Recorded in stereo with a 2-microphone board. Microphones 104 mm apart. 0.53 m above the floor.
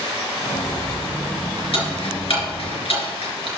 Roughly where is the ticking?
Left.